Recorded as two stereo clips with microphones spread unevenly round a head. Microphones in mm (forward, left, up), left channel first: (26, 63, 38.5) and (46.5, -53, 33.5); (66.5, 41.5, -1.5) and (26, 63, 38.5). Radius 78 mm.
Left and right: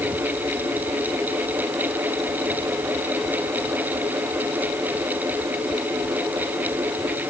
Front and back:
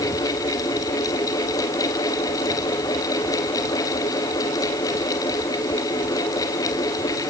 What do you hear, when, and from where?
Only background noise.